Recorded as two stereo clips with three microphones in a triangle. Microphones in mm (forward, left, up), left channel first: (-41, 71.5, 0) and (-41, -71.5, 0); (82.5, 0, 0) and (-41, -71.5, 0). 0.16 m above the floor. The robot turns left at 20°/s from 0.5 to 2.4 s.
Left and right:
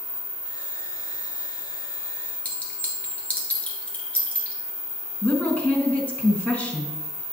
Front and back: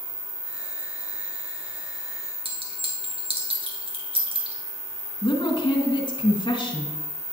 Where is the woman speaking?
15° left, 1.5 m.